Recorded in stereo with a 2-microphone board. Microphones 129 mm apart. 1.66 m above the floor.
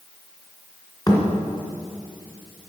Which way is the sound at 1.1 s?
30° left (ahead or behind).